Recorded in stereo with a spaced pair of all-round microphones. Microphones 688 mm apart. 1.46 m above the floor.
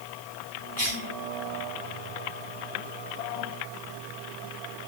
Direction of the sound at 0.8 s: 45° left (ahead or behind).